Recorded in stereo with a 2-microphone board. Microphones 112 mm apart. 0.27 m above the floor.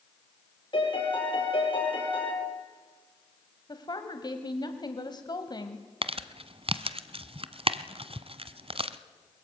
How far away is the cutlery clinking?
I don't hear cutlery clinking.